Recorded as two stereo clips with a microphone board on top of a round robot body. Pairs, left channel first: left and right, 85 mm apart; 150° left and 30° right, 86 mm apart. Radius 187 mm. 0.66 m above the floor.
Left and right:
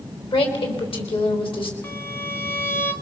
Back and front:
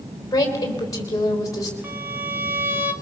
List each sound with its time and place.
0.3 s a woman speaking: 100° left, 3.5 m
1.8 s a violin: 30° left, 1.7 m